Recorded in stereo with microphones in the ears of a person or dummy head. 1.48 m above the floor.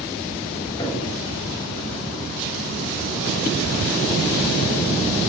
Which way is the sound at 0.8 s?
20° left (ahead or behind).